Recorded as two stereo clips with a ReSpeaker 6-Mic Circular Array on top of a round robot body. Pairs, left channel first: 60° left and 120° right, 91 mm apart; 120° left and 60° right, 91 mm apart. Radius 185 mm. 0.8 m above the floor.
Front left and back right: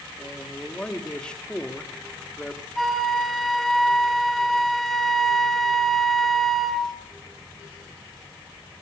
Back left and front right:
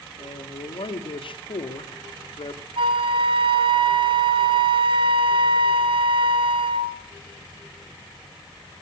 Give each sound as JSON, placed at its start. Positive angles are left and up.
{"t": 0.2, "sound": "a man speaking", "azimuth_deg": 140, "distance_m": 2.5}
{"t": 2.8, "sound": "a flute", "azimuth_deg": -30, "distance_m": 2.0}